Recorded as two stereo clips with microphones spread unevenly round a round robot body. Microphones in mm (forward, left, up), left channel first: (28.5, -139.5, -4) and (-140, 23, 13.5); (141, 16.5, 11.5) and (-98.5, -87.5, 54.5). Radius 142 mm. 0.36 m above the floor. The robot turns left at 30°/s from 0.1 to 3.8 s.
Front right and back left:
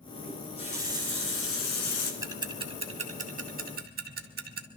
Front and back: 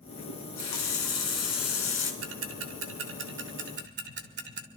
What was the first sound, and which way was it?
A running tap, 35° left.